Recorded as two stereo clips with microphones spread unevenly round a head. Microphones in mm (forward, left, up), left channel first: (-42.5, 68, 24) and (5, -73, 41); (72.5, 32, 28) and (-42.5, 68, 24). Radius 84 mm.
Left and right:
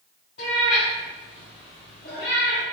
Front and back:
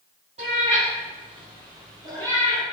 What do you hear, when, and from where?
0.4 s a cat meowing: 140° left, 1.9 m; by 2.6 s 95° left, 1.4 m